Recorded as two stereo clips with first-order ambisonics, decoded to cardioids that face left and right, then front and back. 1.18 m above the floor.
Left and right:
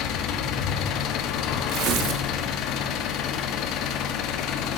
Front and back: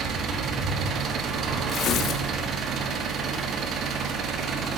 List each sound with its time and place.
0.0 s an engine running: 130° left, 1.3 m
1.7 s tearing paper: 55° right, 1.2 m